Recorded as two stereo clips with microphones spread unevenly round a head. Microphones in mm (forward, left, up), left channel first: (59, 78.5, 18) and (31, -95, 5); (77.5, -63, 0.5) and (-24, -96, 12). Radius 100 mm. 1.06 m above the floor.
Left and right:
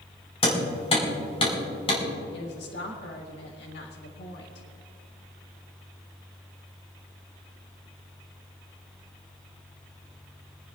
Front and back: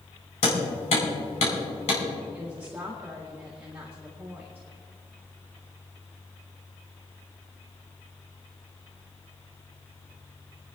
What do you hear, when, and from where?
0.4 s hammering: 25° left, 5 m
2.3 s a woman speaking: 115° left, 1.6 m